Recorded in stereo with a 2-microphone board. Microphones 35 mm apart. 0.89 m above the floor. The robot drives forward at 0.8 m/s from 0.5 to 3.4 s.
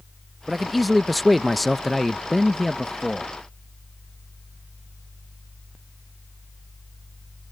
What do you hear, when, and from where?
0.5 s a man speaking: centre (ahead or behind)